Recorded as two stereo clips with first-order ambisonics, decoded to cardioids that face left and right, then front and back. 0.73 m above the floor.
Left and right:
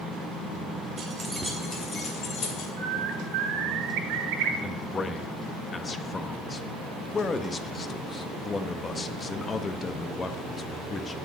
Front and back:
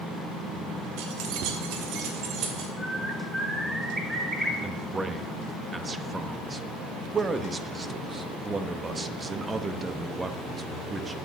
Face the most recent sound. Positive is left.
turn(degrees=130)